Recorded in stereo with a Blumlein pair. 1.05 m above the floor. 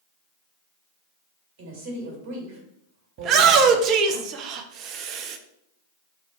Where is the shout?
35° right, 0.6 m.